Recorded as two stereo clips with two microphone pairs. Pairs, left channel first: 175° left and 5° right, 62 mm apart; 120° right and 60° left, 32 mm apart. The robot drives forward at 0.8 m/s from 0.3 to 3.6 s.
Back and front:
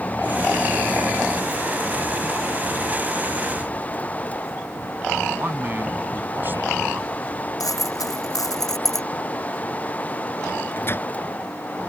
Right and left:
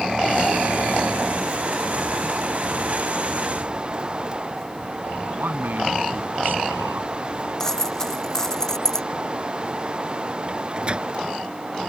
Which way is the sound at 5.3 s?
50° left.